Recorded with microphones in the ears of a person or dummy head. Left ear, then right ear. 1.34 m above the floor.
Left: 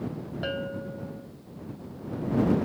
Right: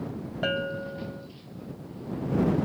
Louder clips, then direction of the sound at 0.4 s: Right 4 dB; 25° right (ahead or behind).